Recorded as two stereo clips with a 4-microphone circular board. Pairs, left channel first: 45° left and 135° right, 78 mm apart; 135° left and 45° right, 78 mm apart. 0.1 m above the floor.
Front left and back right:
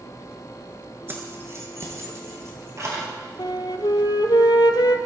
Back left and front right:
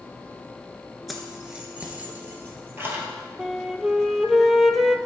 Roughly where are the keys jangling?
Behind right.